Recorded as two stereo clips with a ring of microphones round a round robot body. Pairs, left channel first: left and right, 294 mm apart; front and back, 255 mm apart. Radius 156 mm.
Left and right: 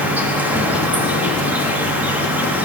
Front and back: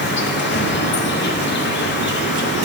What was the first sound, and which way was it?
An insect, 10° right.